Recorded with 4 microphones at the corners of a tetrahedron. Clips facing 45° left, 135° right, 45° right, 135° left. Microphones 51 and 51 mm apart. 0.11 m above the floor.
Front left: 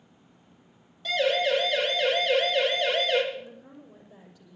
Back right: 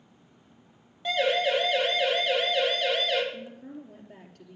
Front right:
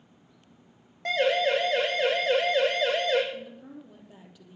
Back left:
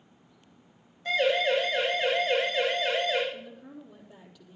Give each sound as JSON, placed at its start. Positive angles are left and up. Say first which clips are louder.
{"t": 1.1, "sound": "a siren", "louder": "front left 1 dB, front right 1 dB", "azimuth_deg": -65, "distance_m": 5.0}
{"t": 3.3, "sound": "a woman speaking", "louder": "back right 1 dB, front right 2 dB", "azimuth_deg": -115, "distance_m": 3.5}